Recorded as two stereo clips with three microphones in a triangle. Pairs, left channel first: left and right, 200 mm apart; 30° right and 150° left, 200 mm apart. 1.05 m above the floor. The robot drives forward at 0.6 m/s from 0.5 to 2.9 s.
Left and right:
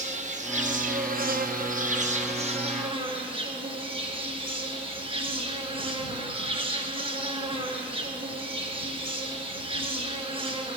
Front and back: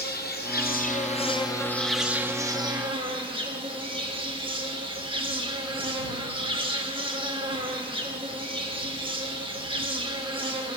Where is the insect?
45° right, 1.0 m; by 10.8 s 150° right, 1.2 m.